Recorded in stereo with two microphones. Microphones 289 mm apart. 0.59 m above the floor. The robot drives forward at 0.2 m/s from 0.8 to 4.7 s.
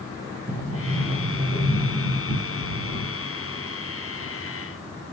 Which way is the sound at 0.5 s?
5° left (ahead or behind).